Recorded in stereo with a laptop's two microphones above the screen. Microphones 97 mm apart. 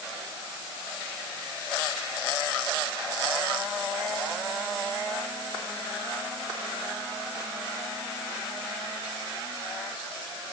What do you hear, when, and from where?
Only background noise.